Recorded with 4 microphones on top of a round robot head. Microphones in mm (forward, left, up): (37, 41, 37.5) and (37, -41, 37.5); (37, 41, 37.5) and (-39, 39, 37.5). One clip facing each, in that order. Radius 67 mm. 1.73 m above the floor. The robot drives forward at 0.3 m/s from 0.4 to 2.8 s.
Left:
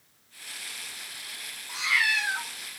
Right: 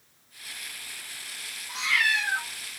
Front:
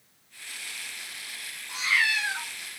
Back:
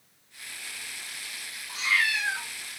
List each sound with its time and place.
1.7 s a cat meowing: 20° left, 1.0 m; by 2.5 s 60° left, 0.9 m